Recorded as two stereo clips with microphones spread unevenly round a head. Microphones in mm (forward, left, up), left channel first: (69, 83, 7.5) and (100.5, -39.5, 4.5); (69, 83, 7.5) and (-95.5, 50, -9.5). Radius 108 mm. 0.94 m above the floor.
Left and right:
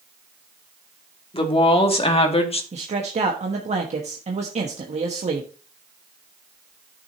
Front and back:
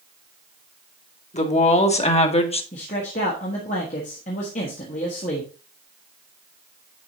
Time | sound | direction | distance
1.3 | a woman speaking | 60° left | 2.5 m
2.7 | a man speaking | 50° right | 1.3 m